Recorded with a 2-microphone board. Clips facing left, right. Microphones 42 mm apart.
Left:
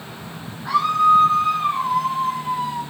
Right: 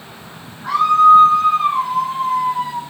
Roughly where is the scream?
Right.